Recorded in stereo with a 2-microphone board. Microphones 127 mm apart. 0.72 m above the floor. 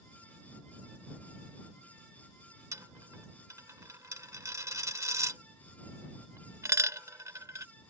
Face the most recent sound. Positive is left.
turn(degrees=-25)  # may be behind; listen again after turning